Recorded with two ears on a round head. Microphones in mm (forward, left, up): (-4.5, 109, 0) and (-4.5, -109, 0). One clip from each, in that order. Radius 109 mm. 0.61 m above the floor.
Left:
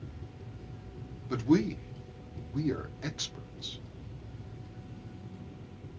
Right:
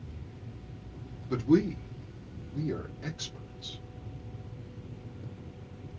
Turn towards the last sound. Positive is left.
turn(degrees=45)  # may be behind; listen again after turning